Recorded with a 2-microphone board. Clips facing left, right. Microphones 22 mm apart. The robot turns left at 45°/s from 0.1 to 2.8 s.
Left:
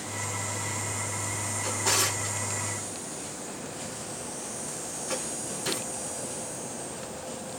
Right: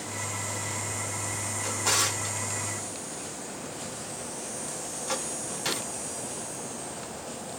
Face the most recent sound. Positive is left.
turn(degrees=-45)  # may be behind; listen again after turning